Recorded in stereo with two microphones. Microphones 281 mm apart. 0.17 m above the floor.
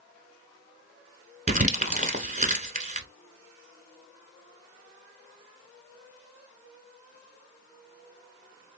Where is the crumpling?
25° right (ahead or behind), 0.9 m.